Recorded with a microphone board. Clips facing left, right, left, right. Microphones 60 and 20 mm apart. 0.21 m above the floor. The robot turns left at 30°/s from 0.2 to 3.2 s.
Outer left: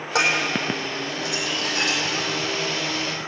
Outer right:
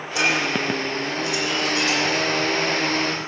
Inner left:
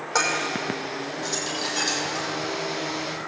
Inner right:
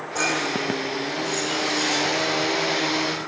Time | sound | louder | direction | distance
0.1 | dishes clattering | even, even | 75° left (ahead or behind) | 5.5 m